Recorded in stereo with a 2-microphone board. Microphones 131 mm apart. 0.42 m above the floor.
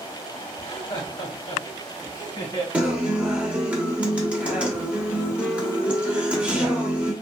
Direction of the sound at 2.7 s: 10° right (ahead or behind).